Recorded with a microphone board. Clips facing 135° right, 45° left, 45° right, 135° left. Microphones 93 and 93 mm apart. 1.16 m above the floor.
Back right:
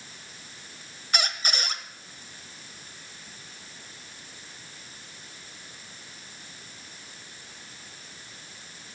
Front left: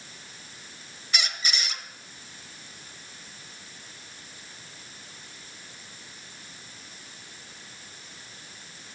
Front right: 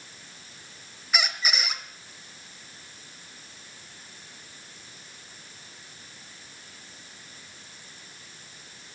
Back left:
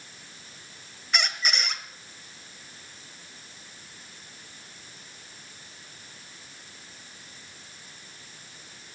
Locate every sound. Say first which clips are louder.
1.1 s a squeak: back right 2 dB, even; 130° right, 1.2 m